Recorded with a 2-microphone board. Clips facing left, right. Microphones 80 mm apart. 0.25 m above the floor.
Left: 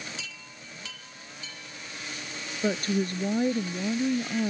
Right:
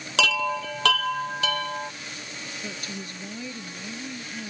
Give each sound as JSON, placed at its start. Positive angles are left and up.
{"t": 0.2, "sound": "a chime", "side_deg": -75}
{"t": 2.6, "sound": "a woman speaking", "side_deg": 45}